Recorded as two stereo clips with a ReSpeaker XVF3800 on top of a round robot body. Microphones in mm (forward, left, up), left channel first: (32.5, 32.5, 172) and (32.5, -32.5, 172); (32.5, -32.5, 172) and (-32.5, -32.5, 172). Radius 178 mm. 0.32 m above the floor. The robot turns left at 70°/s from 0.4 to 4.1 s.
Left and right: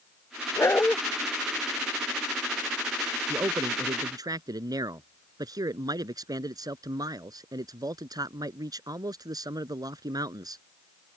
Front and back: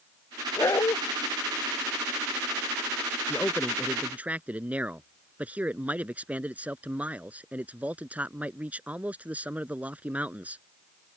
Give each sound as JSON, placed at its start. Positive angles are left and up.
{"t": 0.6, "sound": "a dog barking", "azimuth_deg": 45}
{"t": 3.3, "sound": "a man speaking", "azimuth_deg": -55}